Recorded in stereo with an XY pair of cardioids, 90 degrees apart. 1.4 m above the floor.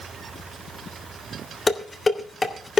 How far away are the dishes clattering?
About 2 m.